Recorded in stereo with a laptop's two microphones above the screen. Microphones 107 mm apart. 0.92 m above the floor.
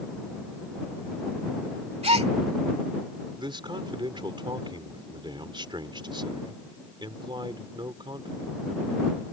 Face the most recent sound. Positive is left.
turn(degrees=-50)  # may be behind; listen again after turning